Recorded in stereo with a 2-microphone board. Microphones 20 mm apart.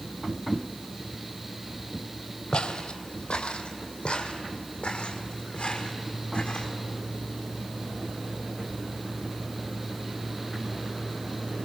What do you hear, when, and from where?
2.5 s footsteps: 60° left (ahead or behind), 1.6 m; by 6.7 s 70° left (ahead or behind), 3.5 m